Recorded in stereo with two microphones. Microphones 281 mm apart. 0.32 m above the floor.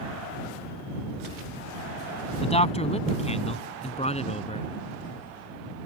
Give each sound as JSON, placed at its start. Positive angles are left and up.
{"t": 2.4, "sound": "a man speaking", "side_deg": 20}